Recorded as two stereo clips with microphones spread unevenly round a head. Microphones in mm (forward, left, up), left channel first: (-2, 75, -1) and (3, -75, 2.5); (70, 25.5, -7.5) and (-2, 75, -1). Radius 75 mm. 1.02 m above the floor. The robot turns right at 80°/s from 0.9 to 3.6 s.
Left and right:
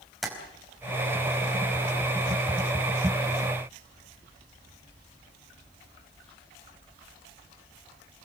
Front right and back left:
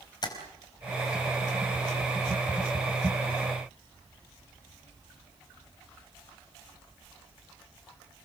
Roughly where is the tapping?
Ahead.